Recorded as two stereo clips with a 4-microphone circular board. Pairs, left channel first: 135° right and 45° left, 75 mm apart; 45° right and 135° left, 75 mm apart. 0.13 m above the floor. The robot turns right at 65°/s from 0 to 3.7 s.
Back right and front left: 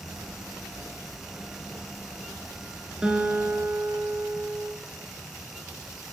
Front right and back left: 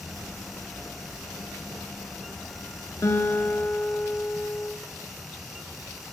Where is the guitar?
25° right, 0.7 m; by 4.7 s 15° left, 0.7 m.